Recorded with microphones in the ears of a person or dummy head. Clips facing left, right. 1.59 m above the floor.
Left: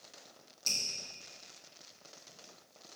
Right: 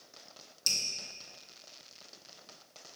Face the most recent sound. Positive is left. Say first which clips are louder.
# even
turn(degrees=-10)  # may be behind; listen again after turning